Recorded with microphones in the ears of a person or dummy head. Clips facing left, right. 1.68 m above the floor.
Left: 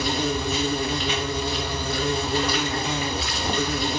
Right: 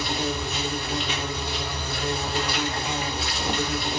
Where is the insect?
60° left (ahead or behind), 2.5 m.